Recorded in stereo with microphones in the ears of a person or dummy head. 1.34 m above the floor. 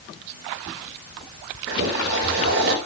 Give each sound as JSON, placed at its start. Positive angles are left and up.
{"t": 1.7, "sound": "boiling", "side_deg": -55, "distance_m": 7.5}